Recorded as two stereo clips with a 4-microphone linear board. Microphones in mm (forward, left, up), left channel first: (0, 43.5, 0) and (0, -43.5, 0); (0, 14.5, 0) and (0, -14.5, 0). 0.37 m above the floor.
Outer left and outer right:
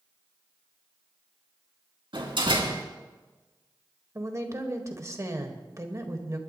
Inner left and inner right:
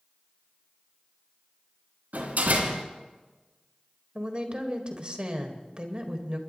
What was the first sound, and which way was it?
A door slam, 75° right (ahead or behind).